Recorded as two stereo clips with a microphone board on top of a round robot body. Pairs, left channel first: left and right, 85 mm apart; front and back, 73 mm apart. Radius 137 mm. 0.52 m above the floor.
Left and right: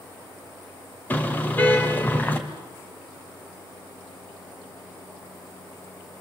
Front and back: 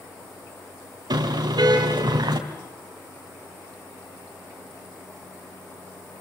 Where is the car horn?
160° left, 2 m.